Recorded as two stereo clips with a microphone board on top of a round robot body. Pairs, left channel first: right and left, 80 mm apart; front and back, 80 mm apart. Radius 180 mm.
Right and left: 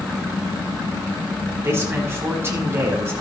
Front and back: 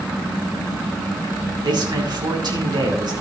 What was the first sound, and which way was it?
A man speaking, 150° left.